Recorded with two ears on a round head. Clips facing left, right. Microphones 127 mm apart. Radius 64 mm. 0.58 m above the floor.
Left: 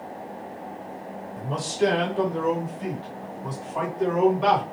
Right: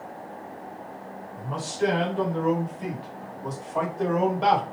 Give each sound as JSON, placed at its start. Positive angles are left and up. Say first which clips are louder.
{"t": 1.4, "sound": "a man speaking", "louder": "left 3 dB", "side_deg": 40, "distance_m": 1.9}